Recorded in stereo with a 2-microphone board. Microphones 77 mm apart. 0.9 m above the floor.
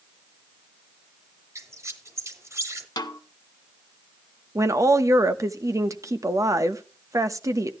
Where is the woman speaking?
45° right (ahead or behind), 0.9 m.